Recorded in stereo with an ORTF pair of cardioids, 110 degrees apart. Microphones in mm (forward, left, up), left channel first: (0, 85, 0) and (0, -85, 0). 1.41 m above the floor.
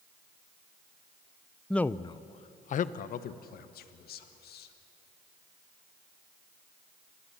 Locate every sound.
1.7 s a man speaking: straight ahead, 0.5 m; by 4.7 s 70° left, 2 m